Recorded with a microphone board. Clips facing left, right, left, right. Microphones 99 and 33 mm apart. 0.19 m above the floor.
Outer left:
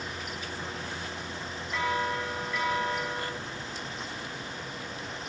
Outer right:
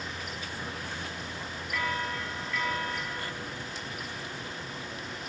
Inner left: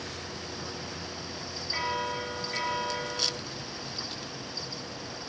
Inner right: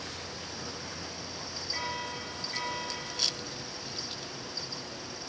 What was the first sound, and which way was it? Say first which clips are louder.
A bell: outer left 4 dB, inner left 6 dB; 20° left (ahead or behind).